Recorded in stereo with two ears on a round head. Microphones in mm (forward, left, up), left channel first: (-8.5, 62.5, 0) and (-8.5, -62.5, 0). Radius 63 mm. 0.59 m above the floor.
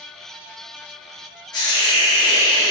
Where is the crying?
I don't hear crying.